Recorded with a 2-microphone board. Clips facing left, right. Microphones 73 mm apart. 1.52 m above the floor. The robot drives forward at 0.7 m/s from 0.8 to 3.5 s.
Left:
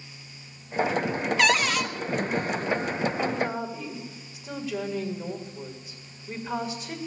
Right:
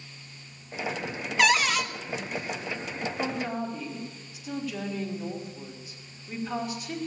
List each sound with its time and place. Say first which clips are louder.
1.4 s a cupboard door: right 1 dB; 5° right (ahead or behind), 0.7 m
3.2 s a woman speaking: left 3 dB; 25° left (ahead or behind), 3 m; by 7.0 s 20° left (ahead or behind), 3 m